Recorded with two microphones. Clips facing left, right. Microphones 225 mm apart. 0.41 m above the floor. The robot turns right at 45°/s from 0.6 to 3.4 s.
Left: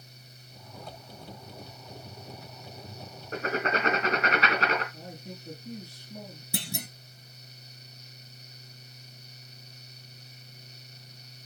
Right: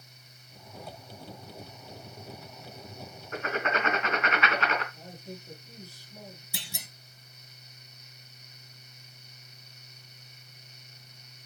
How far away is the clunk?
About 0.7 m.